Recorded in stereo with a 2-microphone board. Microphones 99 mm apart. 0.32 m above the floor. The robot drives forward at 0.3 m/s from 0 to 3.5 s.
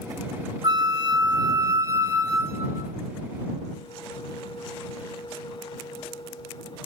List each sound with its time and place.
0.6 s a flute: 40° right (ahead or behind), 0.6 m; by 2.9 s 25° right (ahead or behind), 0.9 m